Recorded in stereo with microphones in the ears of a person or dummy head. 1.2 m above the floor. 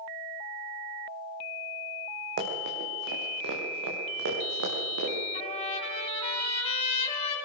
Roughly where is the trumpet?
Left.